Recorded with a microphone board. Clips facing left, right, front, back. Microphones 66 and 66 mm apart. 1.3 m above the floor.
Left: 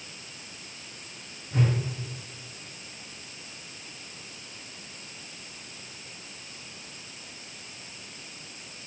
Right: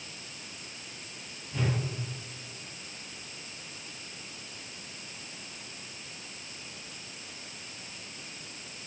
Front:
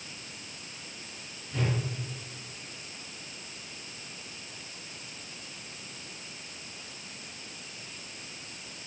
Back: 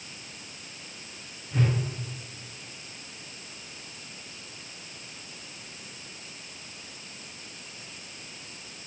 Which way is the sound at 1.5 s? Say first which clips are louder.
Left 5 dB, back 4 dB; 115° left.